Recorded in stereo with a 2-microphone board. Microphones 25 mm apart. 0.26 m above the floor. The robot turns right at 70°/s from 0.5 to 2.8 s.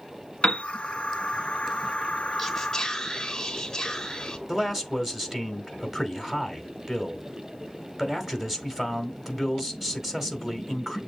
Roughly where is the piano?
Left.